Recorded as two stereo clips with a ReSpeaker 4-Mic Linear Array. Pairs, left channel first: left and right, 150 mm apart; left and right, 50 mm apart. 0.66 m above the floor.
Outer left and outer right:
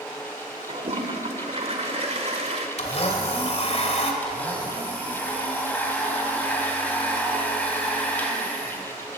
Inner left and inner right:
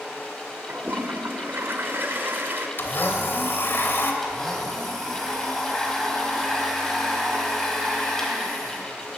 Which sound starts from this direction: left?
A blender, at 2.8 s.